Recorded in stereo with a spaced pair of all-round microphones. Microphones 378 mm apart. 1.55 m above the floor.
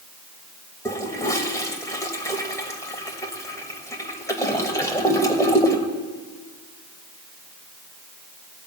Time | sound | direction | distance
0.8 | a toilet flushing | 10° left (ahead or behind) | 1.4 m